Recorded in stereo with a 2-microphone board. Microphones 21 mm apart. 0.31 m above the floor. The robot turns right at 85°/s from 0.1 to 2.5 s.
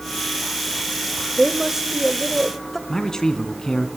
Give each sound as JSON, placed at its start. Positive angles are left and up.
{"t": 1.4, "sound": "a woman speaking", "azimuth_deg": -80, "distance_m": 1.1}
{"t": 2.9, "sound": "a man speaking", "side_deg": 30, "distance_m": 2.5}